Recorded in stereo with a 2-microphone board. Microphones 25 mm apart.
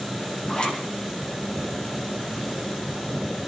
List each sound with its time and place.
0.5 s a zipper: 35° left (ahead or behind), 6.5 m